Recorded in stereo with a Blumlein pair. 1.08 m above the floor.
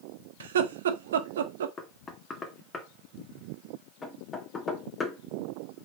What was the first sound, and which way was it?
Laughter, 60° right.